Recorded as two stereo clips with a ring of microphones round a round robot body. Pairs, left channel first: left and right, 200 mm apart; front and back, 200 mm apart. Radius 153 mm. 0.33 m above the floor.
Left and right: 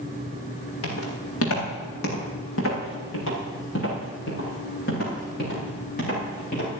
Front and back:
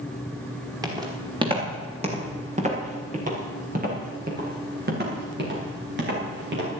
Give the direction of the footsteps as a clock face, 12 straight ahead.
8 o'clock.